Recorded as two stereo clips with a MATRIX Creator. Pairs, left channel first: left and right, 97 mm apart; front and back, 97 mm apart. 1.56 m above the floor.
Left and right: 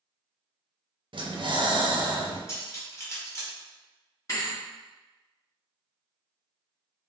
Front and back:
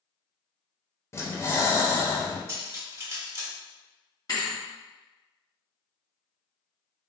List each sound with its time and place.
1.1 s breathing: 60° right, 0.7 m
2.5 s cutlery clinking: 140° left, 1.1 m
4.3 s a thud: 40° left, 1.8 m